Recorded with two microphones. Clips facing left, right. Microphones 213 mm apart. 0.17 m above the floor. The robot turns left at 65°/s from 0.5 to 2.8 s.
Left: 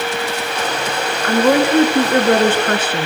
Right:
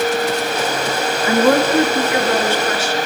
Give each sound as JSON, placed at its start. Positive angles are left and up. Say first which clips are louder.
{"t": 1.2, "sound": "a woman speaking", "louder": "left 1 dB", "azimuth_deg": -170, "distance_m": 2.0}